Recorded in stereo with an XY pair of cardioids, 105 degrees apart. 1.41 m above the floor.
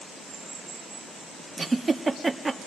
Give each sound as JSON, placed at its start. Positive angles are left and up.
{"t": 1.6, "sound": "a giggle", "azimuth_deg": -25, "distance_m": 1.7}